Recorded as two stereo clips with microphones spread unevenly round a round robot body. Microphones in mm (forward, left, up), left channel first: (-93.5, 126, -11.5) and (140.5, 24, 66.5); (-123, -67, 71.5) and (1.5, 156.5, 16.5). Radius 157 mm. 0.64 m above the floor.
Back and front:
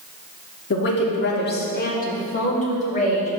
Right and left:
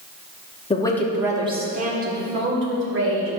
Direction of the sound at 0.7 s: 165° left.